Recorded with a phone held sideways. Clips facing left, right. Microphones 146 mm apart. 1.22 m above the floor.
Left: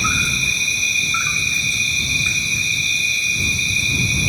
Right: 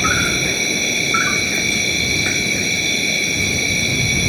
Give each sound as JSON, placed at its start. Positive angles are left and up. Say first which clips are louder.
{"t": 0.0, "sound": "an insect", "louder": "right 6 dB", "side_deg": -70}